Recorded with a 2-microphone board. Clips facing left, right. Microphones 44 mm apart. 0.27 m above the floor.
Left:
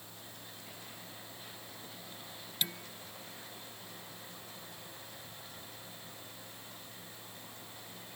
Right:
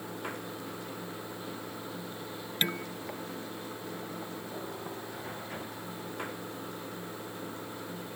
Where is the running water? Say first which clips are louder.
Right 13 dB; 70° right (ahead or behind).